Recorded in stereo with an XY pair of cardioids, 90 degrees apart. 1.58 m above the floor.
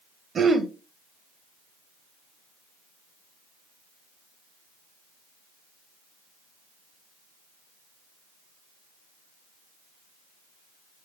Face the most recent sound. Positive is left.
turn(degrees=-50)